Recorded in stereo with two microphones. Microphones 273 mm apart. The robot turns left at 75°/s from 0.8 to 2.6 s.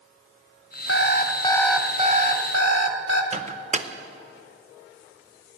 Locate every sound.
0.9 s an alarm clock: 60° left, 1.0 m; by 3.2 s 70° right, 1.0 m
3.3 s a microwave: 25° right (ahead or behind), 0.6 m